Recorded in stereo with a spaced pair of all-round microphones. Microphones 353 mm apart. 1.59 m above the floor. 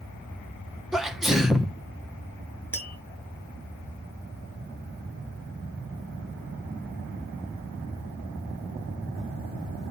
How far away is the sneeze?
About 0.9 m.